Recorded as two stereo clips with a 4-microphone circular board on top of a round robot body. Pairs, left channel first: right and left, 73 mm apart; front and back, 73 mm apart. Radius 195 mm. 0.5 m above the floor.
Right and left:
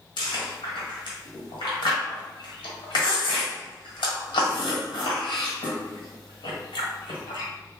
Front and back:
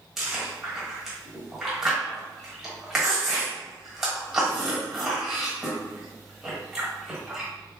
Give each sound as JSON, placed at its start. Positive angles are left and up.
{"t": 0.2, "sound": "chewing", "azimuth_deg": -95, "distance_m": 1.2}